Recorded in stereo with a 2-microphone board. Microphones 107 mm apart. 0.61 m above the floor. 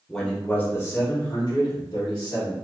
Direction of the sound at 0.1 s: 5° left (ahead or behind).